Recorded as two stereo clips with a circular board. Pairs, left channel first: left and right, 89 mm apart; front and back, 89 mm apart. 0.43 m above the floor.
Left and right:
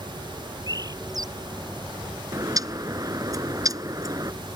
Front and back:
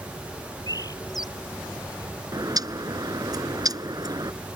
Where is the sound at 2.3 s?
135° right.